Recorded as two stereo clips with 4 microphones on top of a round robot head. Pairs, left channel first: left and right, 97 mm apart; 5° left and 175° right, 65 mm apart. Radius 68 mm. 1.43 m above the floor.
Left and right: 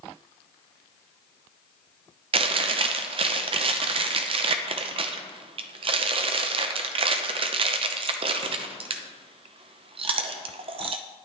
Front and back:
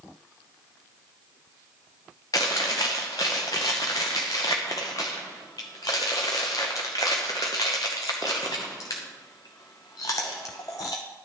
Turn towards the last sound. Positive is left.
turn(degrees=-60)